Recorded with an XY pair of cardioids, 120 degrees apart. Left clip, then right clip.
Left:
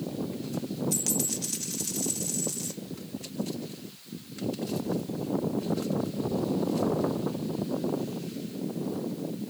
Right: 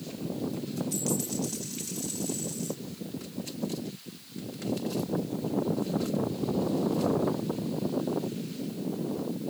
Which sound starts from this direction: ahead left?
A dropped coin, at 0.9 s.